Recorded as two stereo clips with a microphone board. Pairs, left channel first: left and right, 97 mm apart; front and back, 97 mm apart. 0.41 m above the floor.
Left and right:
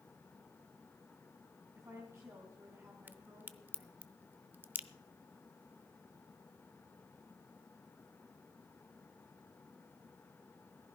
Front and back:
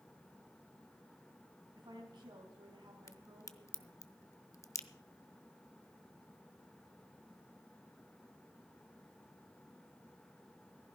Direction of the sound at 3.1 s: 30° right.